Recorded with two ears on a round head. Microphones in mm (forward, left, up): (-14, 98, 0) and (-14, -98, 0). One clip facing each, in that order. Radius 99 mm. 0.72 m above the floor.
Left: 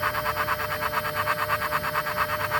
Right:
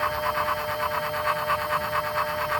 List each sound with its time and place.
Only background noise.